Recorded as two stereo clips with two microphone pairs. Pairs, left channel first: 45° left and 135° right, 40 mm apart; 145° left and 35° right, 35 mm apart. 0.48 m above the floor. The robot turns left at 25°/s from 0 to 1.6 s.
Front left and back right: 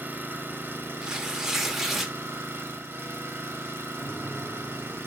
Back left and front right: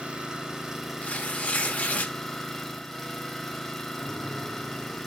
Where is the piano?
20° right, 2 m.